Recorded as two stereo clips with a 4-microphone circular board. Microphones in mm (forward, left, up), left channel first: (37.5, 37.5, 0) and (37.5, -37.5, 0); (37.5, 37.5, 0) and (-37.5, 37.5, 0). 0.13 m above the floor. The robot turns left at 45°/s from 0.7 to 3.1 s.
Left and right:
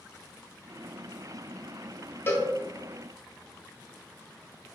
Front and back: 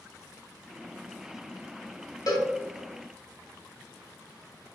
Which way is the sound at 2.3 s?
30° left.